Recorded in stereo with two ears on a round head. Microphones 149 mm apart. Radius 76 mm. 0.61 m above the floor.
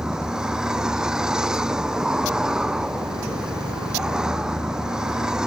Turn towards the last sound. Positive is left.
turn(degrees=-5)  # may be behind; listen again after turning